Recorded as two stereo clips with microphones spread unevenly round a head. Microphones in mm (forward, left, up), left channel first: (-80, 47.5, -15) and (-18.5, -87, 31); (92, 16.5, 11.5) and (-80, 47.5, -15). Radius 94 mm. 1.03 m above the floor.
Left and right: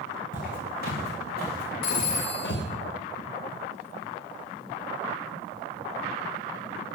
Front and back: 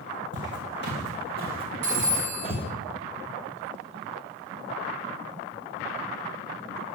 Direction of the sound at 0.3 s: 150° left.